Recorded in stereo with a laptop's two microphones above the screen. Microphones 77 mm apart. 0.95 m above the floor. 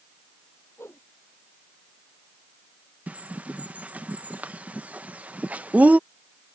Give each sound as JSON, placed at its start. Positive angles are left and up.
{"t": 0.8, "sound": "a whoosh", "side_deg": 30}
{"t": 3.1, "sound": "a bird", "side_deg": -20}